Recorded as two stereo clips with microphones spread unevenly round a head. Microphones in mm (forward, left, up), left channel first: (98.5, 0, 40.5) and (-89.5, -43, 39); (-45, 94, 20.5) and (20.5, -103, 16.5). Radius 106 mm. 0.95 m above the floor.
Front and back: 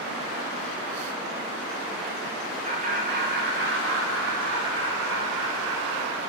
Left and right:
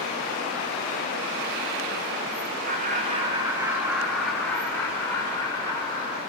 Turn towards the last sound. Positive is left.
turn(degrees=175)